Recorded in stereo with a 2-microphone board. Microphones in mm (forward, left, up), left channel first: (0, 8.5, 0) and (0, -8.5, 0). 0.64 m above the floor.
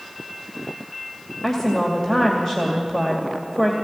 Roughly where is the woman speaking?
Left.